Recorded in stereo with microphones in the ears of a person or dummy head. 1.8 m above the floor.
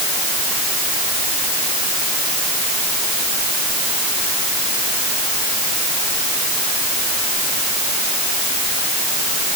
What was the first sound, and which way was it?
Only background noise.